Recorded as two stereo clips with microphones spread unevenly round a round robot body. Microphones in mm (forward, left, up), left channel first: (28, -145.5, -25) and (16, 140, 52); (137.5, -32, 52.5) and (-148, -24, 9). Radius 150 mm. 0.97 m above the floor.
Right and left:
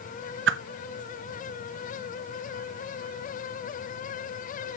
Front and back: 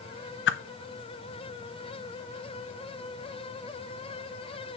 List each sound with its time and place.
0.5 s a whoosh: 40° left, 0.7 m